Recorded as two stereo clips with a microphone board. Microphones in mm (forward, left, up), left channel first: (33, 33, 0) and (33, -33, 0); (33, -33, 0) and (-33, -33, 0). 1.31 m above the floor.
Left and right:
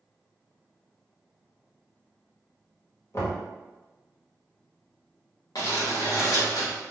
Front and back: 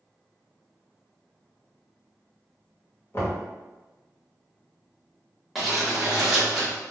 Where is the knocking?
50° left, 1.1 m.